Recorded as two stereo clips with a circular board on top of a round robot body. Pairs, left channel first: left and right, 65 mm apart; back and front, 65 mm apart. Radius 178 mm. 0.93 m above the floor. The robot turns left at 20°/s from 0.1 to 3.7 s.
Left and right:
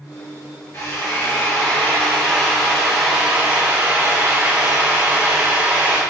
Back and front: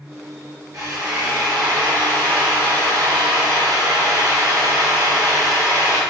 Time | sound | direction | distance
0.7 | a drill | 40° left | 2 m